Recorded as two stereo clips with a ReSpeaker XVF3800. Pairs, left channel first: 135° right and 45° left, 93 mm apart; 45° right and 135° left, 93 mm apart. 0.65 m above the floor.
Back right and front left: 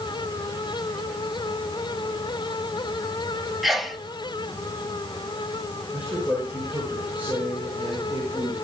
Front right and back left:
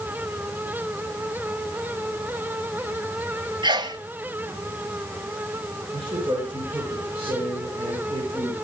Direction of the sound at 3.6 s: 135° left.